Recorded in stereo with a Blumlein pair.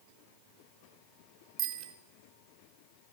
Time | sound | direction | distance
1.6 | a bicycle bell | 35° right | 2 m